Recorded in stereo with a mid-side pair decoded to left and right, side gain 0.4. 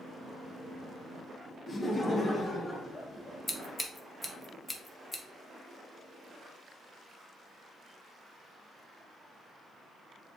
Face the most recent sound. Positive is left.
turn(degrees=20)